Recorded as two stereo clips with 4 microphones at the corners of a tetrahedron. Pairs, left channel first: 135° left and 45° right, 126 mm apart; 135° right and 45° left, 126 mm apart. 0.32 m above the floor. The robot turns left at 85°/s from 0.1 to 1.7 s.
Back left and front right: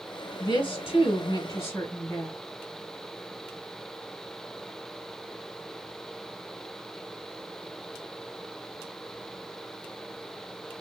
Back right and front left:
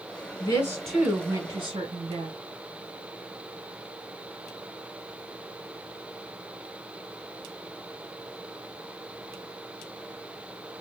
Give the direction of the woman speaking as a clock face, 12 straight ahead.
6 o'clock.